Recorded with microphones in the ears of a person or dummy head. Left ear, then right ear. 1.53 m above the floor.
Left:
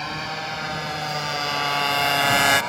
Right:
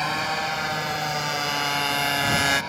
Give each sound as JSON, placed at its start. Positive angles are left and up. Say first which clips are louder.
{"t": 0.0, "sound": "a motorcycle", "louder": "right 4 dB", "side_deg": -15}